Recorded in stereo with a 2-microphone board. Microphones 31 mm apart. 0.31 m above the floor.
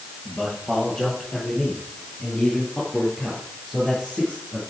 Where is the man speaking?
Centre (ahead or behind), 6.5 m; by 4.6 s 20° right (ahead or behind), 6 m.